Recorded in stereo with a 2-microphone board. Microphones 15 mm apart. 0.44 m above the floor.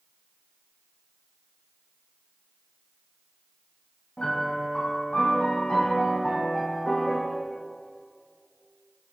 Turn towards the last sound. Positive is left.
turn(degrees=85)